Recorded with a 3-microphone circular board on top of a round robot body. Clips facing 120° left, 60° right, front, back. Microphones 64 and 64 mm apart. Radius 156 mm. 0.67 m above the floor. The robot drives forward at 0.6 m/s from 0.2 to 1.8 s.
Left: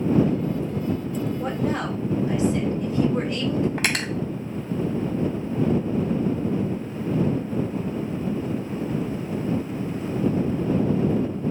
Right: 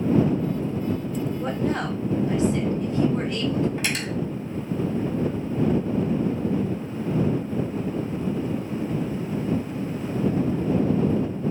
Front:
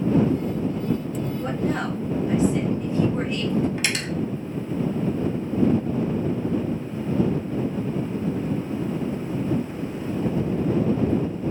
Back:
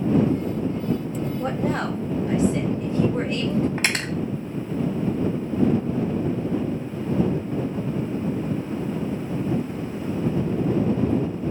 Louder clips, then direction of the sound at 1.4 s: Right 1 dB, back 1 dB; straight behind.